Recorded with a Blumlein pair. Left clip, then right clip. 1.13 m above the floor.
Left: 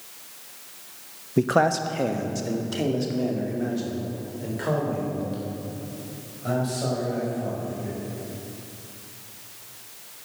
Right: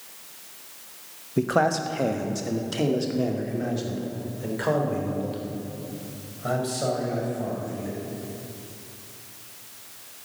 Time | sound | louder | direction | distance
1.4 | a man speaking | left 2 dB | 10° left | 0.9 m